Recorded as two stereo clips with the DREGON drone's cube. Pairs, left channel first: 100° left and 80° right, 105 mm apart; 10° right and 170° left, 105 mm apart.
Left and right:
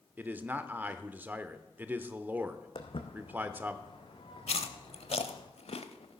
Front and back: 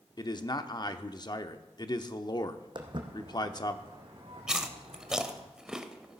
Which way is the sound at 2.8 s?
130° left.